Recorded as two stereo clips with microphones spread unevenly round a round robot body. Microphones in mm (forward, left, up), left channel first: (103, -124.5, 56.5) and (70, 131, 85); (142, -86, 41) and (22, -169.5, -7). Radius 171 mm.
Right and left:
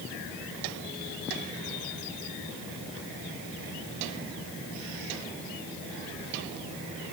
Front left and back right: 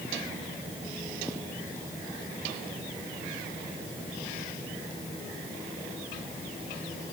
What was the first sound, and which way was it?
Only background noise.